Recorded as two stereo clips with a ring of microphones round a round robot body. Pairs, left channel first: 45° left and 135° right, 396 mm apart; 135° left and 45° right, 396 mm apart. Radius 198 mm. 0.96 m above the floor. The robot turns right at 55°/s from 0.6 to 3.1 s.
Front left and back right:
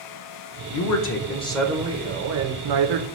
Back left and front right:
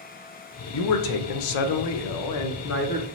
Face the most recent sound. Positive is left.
turn(degrees=-145)